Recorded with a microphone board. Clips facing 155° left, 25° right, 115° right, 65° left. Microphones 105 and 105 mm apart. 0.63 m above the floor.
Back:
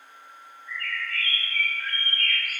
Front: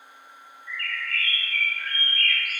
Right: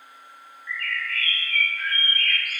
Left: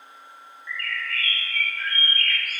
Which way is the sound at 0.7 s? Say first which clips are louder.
Front 1 dB, right 1 dB; 35° right.